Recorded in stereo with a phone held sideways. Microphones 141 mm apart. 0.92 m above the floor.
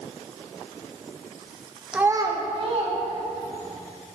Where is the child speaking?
5° right (ahead or behind), 0.6 m; by 3.8 s 60° right (ahead or behind), 3 m.